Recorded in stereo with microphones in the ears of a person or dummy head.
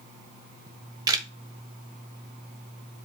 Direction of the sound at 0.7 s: 25° right (ahead or behind).